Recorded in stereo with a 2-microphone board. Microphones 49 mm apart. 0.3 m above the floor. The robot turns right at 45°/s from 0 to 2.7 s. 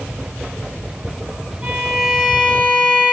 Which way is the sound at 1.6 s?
15° right.